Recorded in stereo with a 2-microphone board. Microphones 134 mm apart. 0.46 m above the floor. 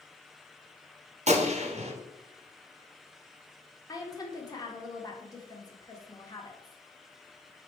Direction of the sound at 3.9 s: 30° left (ahead or behind).